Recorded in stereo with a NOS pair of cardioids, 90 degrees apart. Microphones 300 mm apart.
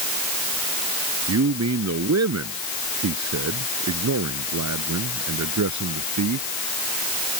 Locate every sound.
1.3 s a man speaking: 55° right; by 6.5 s 65° right